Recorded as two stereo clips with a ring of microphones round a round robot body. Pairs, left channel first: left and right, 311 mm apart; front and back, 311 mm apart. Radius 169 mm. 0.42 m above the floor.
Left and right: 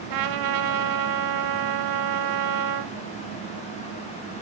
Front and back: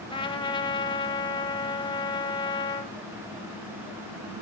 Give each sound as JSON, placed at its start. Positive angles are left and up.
{"t": 0.1, "sound": "a trumpet", "azimuth_deg": -75, "distance_m": 1.0}